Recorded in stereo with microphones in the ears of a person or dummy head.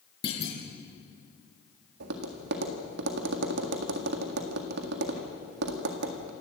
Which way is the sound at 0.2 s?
30° left (ahead or behind).